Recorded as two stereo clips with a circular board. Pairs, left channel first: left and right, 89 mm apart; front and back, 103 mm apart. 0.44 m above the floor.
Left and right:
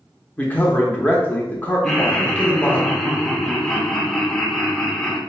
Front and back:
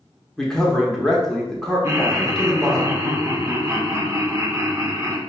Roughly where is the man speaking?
Left.